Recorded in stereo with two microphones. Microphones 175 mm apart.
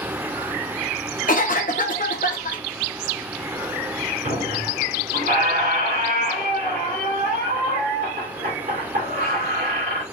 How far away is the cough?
About 1.0 m.